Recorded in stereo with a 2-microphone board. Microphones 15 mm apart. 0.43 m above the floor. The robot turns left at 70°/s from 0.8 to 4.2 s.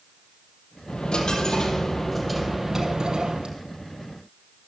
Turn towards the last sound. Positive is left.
turn(degrees=-130)